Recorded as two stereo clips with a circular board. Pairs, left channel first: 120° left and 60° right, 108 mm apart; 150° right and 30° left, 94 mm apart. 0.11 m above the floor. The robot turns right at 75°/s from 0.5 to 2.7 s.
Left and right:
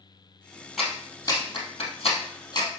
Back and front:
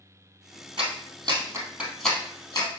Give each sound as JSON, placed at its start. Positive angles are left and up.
{"t": 0.8, "sound": "a clap", "azimuth_deg": 25, "distance_m": 3.0}